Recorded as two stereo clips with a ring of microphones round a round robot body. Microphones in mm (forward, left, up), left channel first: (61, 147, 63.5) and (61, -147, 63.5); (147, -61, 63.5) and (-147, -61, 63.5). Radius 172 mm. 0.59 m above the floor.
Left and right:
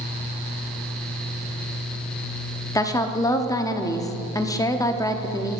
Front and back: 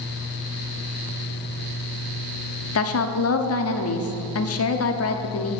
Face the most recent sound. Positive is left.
turn(degrees=15)